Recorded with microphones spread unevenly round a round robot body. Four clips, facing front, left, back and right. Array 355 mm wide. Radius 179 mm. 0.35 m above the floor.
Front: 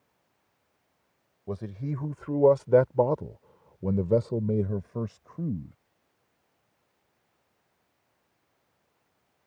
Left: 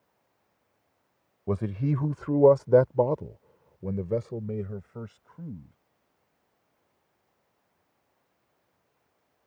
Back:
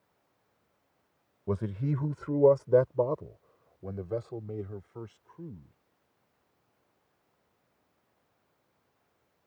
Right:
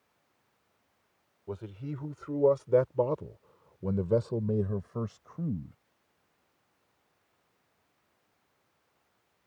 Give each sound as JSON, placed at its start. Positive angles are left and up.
{"t": 1.5, "sound": "a man speaking", "azimuth_deg": 110}